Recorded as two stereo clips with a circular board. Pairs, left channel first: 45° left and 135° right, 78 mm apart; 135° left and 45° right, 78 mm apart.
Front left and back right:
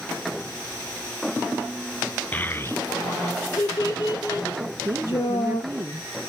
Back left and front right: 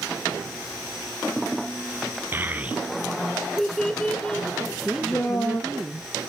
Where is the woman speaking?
125° right, 1.2 m.